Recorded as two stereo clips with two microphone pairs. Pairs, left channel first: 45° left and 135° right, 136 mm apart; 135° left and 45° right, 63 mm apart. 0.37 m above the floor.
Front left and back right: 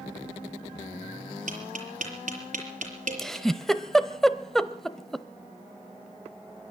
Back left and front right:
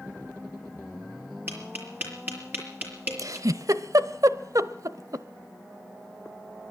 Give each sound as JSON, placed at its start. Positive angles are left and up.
{"t": 1.5, "sound": "tapping", "azimuth_deg": -105, "distance_m": 5.5}
{"t": 3.2, "sound": "a giggle", "azimuth_deg": -40, "distance_m": 0.9}